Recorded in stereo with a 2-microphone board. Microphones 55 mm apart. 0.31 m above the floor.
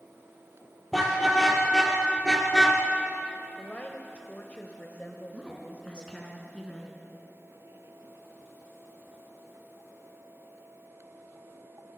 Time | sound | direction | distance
0.9 | a car horn | centre (ahead or behind) | 5 m
3.6 | a woman speaking | 30° left (ahead or behind) | 1.6 m
5.3 | a woman speaking | 20° left (ahead or behind) | 4 m